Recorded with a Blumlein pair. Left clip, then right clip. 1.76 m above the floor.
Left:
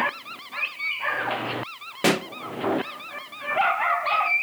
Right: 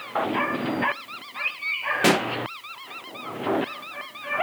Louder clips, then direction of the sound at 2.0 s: Right 1 dB; 5° right.